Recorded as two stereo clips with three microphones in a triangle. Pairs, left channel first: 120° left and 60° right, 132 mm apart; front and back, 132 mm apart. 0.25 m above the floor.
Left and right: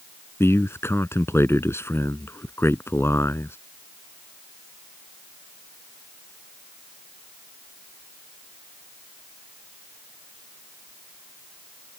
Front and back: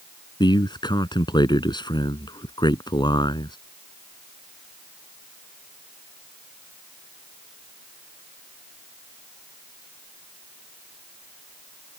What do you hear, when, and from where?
0.4 s a man speaking: 50° left